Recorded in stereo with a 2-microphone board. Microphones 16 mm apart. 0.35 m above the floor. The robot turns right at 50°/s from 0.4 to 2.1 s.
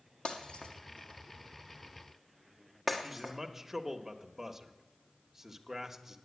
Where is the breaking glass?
80° left, 1.5 m; by 3.3 s 5° left (ahead or behind), 1.5 m.